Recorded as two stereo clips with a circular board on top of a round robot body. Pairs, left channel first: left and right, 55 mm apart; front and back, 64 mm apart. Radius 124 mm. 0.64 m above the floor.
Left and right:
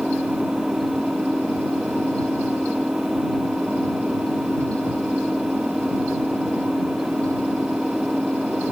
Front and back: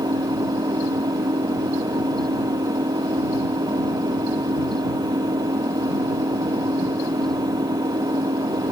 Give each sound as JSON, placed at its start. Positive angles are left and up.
{"t": 0.0, "sound": "an engine running", "azimuth_deg": -170}